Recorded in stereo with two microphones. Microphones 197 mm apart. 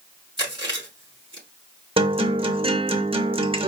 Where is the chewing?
25° right (ahead or behind), 3 m.